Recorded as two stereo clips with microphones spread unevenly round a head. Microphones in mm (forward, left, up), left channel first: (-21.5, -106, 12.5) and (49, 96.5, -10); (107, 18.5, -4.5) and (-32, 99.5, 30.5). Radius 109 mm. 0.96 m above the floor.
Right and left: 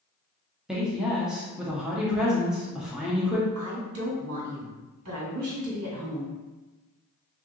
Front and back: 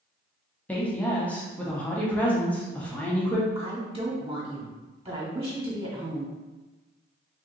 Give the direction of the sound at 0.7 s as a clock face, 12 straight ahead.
12 o'clock.